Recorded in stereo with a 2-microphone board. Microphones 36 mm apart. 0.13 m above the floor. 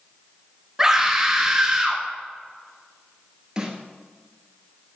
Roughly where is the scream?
Centre.